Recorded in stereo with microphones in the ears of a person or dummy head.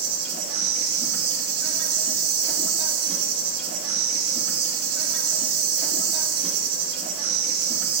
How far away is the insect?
About 2 m.